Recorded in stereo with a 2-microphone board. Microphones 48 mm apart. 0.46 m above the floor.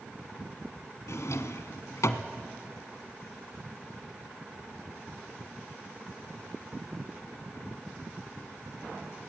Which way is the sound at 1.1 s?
80° left.